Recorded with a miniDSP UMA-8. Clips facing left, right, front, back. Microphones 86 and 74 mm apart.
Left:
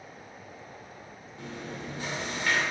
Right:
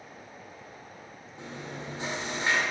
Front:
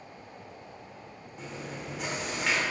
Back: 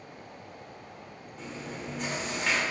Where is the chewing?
85° right, 1.3 m.